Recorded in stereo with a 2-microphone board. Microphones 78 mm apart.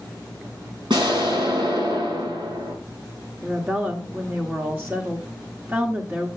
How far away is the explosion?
About 6.5 m.